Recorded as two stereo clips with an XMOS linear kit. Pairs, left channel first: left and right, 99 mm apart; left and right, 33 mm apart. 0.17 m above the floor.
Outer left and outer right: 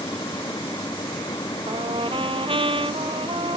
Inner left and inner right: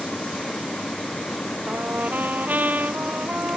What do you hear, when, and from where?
1.7 s a trumpet: 65° right (ahead or behind)